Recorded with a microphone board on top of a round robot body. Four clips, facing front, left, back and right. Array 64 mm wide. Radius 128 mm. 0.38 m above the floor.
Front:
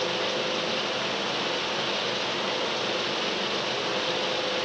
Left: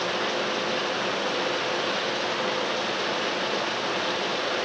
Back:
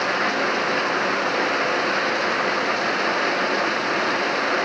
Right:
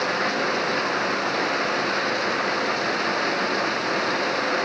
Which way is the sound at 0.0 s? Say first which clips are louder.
Right 4 dB, back 7 dB; 160° right.